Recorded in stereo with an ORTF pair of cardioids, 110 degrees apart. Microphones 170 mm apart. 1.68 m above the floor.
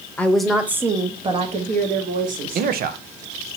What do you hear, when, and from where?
0.2 s a woman speaking: 10° left, 1.0 m; by 2.7 s 60° right, 1.7 m
2.5 s a man speaking: 60° right, 0.8 m